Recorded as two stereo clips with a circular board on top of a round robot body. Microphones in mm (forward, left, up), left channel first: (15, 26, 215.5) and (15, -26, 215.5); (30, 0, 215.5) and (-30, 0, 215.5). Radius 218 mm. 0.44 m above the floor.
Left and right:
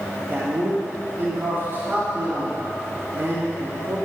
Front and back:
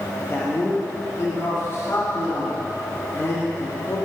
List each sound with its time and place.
0.2 s a man speaking: 55° right, 1.7 m